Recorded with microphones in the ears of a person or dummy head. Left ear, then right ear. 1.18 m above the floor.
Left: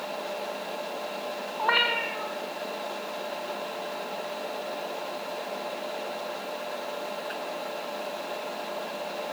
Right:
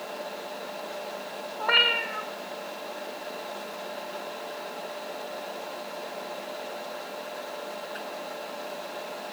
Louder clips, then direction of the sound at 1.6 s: Right 2 dB; 10° left (ahead or behind).